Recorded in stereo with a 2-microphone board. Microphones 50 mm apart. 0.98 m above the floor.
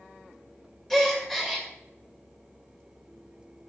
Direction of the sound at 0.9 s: 5° left (ahead or behind).